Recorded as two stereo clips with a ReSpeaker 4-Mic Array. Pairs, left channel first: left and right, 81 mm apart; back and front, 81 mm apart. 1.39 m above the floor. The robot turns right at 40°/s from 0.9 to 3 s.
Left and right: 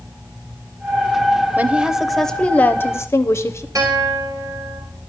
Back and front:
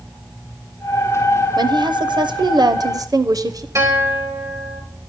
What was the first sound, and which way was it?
A woman speaking, 20° right.